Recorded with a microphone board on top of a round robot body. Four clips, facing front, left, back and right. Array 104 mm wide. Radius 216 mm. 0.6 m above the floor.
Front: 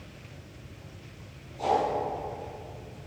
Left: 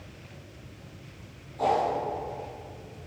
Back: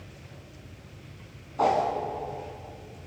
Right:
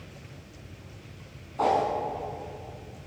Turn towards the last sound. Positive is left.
turn(degrees=-150)